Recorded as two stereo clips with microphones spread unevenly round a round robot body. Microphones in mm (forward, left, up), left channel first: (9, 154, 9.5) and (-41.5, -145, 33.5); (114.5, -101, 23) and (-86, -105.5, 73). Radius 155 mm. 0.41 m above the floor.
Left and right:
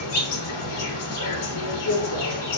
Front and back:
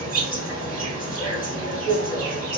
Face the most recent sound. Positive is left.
turn(degrees=110)